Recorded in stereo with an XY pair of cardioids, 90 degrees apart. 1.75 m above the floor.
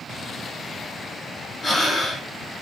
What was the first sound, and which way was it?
Breathing, 30° left.